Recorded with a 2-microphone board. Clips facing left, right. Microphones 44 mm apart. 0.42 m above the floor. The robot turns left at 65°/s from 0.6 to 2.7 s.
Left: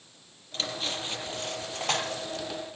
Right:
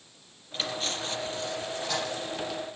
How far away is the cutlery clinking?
About 6.5 m.